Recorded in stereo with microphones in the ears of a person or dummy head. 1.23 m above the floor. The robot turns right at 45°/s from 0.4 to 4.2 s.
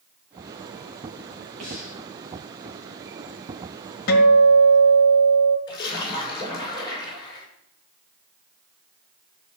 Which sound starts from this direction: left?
A guitar, at 4.1 s.